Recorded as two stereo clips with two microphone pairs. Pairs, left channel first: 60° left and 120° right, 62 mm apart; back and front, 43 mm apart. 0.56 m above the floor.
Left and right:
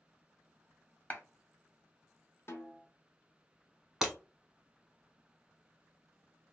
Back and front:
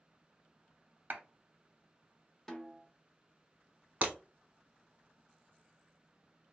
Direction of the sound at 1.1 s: 10° left.